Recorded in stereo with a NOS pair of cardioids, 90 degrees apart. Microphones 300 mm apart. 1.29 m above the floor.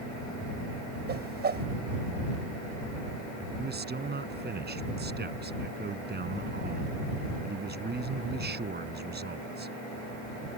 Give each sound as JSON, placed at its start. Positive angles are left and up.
{"t": 1.1, "sound": "a whoosh", "azimuth_deg": -35}
{"t": 3.6, "sound": "a man speaking", "azimuth_deg": -35}